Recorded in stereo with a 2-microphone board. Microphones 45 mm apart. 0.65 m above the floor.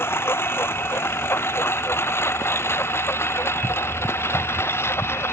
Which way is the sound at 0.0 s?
60° left (ahead or behind).